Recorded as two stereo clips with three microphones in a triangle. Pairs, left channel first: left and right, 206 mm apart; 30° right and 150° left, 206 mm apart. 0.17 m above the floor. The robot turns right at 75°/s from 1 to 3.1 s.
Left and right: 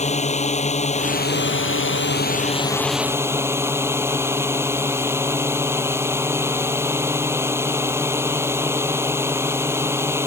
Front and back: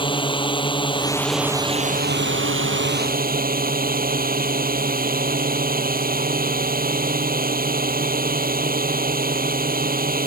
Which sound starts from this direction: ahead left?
A drone, at 0.0 s.